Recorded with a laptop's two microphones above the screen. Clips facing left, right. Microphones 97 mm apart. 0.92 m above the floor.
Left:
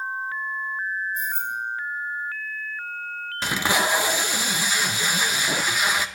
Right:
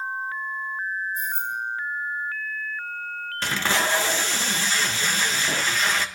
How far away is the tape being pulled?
About 0.5 m.